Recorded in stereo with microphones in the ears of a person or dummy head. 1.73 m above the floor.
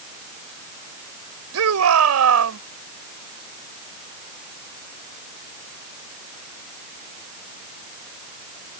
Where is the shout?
80° right.